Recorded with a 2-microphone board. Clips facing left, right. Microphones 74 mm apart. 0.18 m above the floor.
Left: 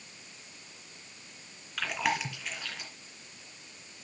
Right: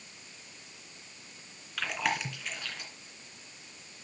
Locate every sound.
1.8 s chewing: centre (ahead or behind), 2.5 m